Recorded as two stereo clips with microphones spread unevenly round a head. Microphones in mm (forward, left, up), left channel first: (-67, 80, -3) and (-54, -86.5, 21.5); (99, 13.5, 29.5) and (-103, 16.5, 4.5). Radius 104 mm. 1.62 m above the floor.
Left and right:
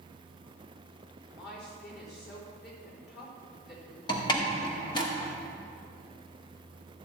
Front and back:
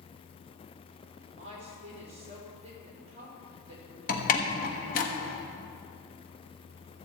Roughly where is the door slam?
Ahead left.